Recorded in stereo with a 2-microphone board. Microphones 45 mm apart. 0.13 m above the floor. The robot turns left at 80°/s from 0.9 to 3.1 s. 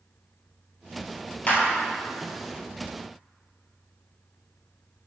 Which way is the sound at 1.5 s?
35° left (ahead or behind).